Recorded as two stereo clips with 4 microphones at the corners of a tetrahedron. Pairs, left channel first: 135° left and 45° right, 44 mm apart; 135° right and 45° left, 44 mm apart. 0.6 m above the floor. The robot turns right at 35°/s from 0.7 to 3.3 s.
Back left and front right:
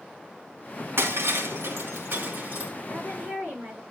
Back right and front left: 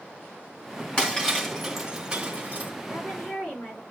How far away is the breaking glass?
About 2.5 m.